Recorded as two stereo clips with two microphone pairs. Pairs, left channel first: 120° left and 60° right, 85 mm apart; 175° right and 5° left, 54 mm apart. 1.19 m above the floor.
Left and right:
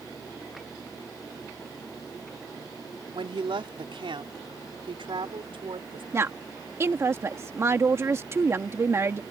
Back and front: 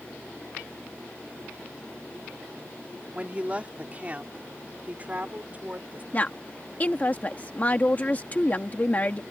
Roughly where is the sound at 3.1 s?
Ahead right.